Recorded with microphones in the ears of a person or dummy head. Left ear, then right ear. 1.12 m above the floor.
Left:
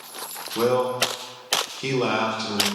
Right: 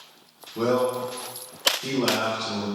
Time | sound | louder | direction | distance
0.6 | a man speaking | left 2 dB | 45° left (ahead or behind) | 0.8 m